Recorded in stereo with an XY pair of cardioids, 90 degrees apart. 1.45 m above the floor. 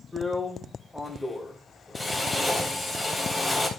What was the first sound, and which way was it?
A drill, 15° left.